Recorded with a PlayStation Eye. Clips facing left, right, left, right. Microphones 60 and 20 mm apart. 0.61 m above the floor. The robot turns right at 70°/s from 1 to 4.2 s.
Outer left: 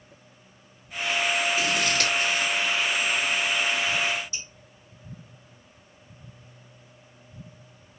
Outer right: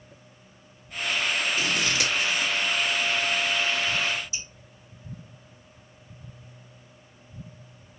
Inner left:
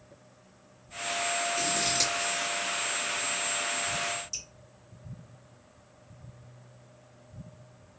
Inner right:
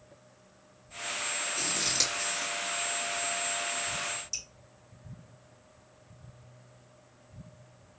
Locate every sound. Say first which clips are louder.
1.6 s scissors: outer left 1 dB, inner right 1 dB; 5° left (ahead or behind), 1.1 m; by 2.5 s 30° right (ahead or behind), 1.1 m
4.3 s dripping: outer right 1 dB, inner right 1 dB; 15° right (ahead or behind), 2.5 m